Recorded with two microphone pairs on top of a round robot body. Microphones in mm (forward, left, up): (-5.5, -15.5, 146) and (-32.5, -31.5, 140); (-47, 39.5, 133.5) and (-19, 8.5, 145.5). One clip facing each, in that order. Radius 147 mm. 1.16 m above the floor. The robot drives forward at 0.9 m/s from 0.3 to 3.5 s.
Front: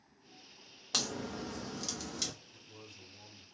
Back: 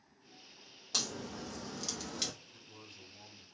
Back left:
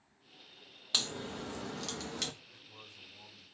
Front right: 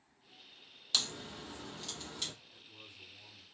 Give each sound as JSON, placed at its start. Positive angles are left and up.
{"t": 0.9, "sound": "a crack", "azimuth_deg": 55, "distance_m": 0.8}
{"t": 2.5, "sound": "a man speaking", "azimuth_deg": 140, "distance_m": 2.5}